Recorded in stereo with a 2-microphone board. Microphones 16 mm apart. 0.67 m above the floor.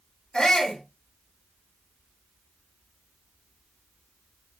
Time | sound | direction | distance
0.3 | a shout | 70° left (ahead or behind) | 2.5 m